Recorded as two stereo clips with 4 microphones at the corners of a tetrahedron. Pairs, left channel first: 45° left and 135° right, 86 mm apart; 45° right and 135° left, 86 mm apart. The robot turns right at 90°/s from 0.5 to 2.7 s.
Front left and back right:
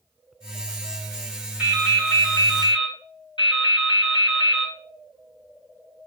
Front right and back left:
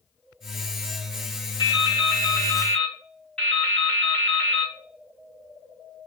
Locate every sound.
1.6 s dripping: 65° right, 3.5 m; by 4.8 s 35° left, 3.5 m